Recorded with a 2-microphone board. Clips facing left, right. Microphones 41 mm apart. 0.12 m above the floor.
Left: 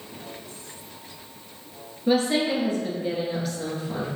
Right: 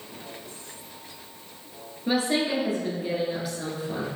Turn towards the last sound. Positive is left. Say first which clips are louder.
# left 3 dB
turn(degrees=-5)  # may be behind; listen again after turning